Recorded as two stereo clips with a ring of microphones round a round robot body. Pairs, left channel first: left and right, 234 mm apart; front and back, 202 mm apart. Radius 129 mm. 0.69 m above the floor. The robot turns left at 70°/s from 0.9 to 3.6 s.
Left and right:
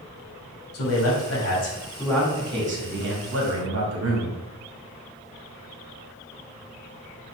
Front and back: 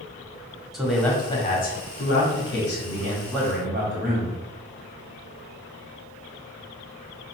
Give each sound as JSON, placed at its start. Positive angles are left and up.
{"t": 0.7, "sound": "a man speaking", "azimuth_deg": 90, "distance_m": 1.8}